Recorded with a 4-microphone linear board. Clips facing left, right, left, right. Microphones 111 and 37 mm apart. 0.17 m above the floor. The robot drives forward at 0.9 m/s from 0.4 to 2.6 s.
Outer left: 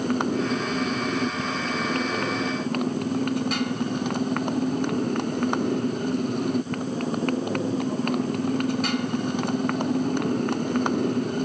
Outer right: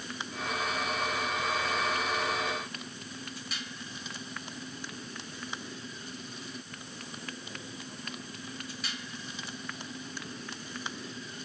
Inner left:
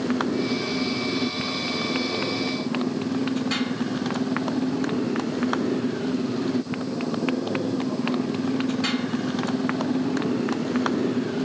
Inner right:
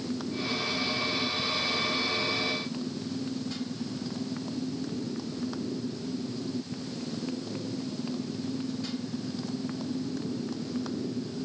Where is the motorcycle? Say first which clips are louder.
Outer left 15 dB, inner left 9 dB; 60° left (ahead or behind).